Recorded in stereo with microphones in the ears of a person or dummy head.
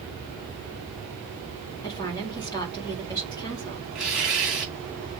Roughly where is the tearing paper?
Centre.